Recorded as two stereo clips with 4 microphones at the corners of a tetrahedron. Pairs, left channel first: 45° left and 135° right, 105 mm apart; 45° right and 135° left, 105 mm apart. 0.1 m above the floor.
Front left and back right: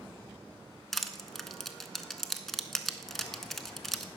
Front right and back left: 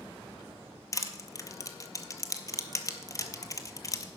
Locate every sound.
0.9 s crushing: 40° right, 0.7 m